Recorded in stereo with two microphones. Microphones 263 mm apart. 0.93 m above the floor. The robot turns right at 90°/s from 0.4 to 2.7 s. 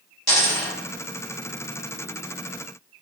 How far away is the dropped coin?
About 1.5 m.